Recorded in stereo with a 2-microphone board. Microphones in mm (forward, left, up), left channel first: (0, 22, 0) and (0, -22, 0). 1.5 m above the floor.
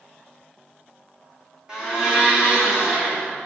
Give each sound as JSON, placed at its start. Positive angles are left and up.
{"t": 1.7, "sound": "a blender", "side_deg": -20, "distance_m": 2.0}